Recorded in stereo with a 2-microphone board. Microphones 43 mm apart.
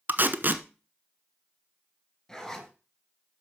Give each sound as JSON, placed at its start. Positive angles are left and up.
{"t": 0.1, "sound": "tape being pulled", "side_deg": -50, "distance_m": 0.9}
{"t": 2.3, "sound": "a zipper", "side_deg": 5, "distance_m": 3.0}